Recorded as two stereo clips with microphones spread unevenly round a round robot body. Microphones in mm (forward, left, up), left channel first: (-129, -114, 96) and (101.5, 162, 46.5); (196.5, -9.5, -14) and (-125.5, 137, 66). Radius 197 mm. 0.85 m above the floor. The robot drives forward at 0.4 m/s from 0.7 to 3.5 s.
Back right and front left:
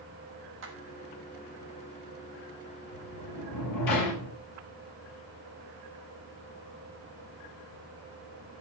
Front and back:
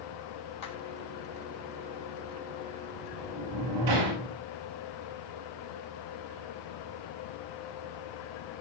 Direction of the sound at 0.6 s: 5° right.